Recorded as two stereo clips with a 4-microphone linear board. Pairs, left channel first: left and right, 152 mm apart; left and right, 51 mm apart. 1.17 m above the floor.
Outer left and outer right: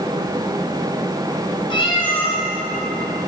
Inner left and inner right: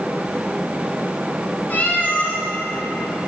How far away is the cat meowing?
About 1.8 m.